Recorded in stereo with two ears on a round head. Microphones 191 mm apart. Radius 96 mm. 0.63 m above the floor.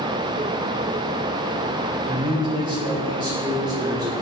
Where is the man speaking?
20° right (ahead or behind), 1.1 m.